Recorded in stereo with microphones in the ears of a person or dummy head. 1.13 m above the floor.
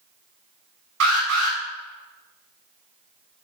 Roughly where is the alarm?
Right.